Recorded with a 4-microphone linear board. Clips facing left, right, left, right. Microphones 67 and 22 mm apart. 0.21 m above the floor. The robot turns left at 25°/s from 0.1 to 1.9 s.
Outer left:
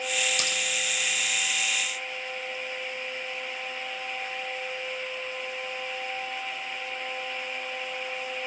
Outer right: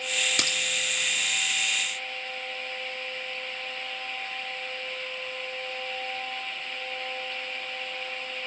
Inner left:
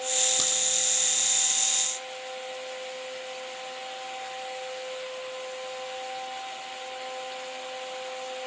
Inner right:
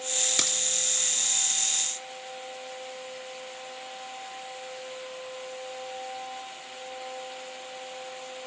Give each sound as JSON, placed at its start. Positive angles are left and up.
{"t": 0.4, "sound": "a crack", "side_deg": -55, "distance_m": 3.0}